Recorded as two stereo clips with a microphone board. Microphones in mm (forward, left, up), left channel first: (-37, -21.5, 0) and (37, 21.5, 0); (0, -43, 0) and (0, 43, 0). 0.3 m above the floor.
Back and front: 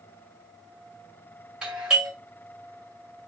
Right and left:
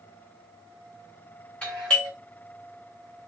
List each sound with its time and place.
1.6 s a doorbell: 35° right, 1.9 m